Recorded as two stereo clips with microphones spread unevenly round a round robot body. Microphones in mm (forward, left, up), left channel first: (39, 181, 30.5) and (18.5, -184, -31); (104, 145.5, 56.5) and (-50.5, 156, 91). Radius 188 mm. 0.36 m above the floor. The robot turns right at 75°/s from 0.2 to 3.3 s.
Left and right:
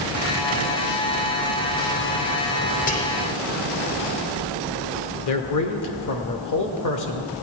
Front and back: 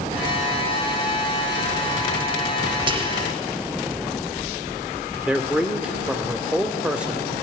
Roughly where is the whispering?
Behind left.